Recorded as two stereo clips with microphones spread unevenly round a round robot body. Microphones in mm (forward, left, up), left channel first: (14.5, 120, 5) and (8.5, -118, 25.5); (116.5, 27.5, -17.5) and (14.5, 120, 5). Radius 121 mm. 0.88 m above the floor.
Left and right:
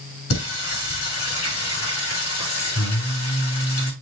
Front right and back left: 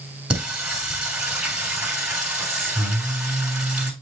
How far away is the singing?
About 6.5 m.